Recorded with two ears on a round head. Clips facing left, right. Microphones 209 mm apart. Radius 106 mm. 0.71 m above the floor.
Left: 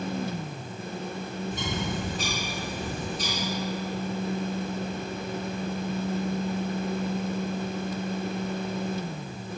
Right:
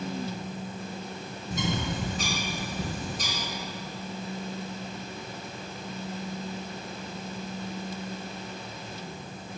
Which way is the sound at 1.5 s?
40° right (ahead or behind).